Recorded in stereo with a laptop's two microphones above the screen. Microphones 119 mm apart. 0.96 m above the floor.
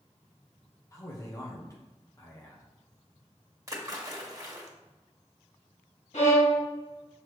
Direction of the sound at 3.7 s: 30° right (ahead or behind).